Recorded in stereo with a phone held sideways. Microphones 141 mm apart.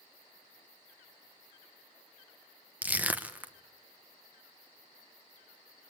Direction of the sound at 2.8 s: 10° right (ahead or behind).